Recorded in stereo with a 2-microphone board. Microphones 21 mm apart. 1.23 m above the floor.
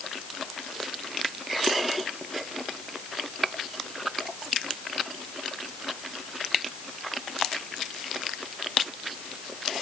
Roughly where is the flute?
I don't hear a flute.